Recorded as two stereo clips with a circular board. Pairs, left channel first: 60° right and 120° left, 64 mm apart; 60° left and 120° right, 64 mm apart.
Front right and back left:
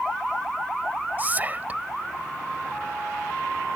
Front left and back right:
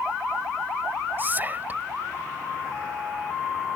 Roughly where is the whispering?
Behind.